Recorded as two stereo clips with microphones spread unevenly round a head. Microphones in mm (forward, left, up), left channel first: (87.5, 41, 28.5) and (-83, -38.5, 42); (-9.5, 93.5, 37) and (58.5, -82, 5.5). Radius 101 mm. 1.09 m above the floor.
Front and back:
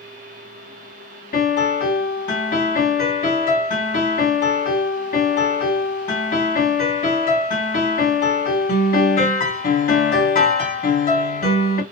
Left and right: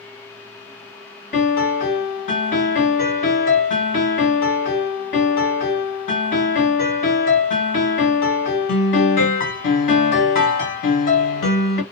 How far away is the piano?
About 1.9 m.